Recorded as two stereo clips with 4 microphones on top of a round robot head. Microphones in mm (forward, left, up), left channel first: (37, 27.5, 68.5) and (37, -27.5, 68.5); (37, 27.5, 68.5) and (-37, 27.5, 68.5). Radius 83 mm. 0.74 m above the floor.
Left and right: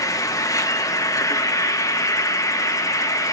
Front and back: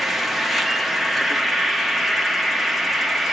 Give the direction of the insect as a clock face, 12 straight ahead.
9 o'clock.